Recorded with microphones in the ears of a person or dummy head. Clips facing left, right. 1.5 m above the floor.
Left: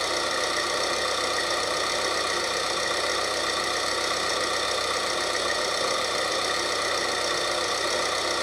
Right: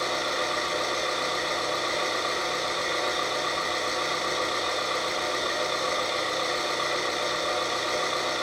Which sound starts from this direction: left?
An engine running, at 0.0 s.